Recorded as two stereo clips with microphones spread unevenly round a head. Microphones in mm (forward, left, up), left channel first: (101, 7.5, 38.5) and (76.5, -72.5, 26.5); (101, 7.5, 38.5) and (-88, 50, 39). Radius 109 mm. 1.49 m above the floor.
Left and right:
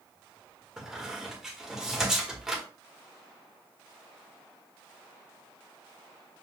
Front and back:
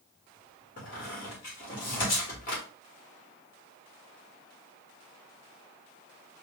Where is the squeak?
15° right, 1.2 m.